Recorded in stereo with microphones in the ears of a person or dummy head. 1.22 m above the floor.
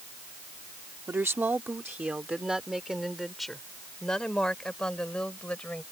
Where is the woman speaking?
15° right (ahead or behind); by 5.8 s 5° left (ahead or behind).